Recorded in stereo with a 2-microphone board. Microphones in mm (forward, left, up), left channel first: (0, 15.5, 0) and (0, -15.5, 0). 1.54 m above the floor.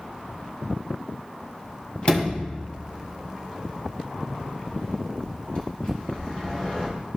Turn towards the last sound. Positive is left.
turn(degrees=35)  # may be behind; listen again after turning